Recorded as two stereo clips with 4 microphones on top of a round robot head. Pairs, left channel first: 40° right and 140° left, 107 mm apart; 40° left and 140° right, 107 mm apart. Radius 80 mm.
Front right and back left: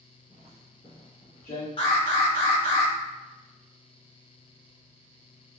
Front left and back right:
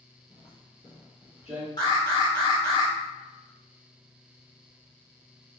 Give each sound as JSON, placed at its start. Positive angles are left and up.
{"t": 0.3, "sound": "footsteps", "azimuth_deg": 65, "distance_m": 0.7}
{"t": 1.8, "sound": "an alarm", "azimuth_deg": -5, "distance_m": 1.4}